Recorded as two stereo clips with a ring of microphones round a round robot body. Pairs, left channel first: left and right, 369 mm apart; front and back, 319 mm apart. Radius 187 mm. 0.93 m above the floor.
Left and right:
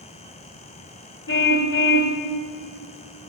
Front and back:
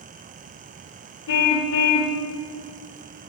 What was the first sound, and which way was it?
A car horn, 30° left.